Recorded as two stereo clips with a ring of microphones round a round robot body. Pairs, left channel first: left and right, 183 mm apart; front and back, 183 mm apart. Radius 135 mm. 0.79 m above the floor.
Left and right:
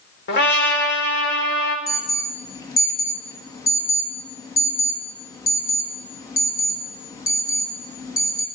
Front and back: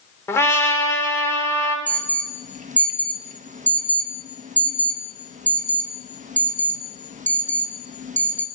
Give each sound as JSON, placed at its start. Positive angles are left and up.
{"t": 0.3, "sound": "a trumpet", "azimuth_deg": 75, "distance_m": 2.5}
{"t": 1.9, "sound": "an alarm", "azimuth_deg": 155, "distance_m": 1.2}